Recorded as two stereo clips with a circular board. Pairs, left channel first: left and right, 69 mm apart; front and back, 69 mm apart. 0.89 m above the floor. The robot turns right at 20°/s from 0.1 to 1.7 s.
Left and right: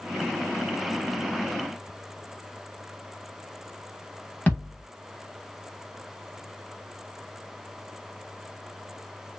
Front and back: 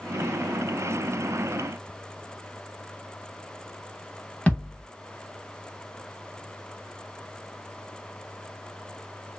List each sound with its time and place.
4.5 s a thud: 50° left, 0.8 m